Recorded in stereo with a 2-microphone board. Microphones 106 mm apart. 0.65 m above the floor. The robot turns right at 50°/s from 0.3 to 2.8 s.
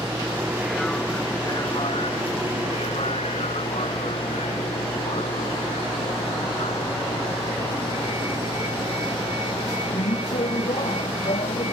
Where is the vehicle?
20° right; by 11.7 s 105° left.